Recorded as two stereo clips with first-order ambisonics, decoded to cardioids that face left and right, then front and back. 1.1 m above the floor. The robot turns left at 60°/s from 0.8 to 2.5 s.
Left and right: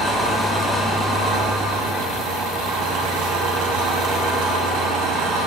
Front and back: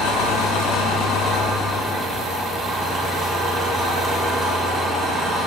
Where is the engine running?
10° right, 2 m; by 5.5 s 110° right, 2 m.